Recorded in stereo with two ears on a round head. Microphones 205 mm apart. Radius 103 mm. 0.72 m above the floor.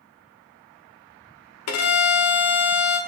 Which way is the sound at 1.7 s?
70° left (ahead or behind).